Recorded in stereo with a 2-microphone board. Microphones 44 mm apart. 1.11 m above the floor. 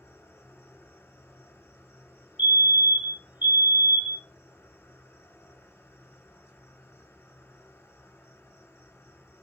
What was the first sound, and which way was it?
An insect, 70° left (ahead or behind).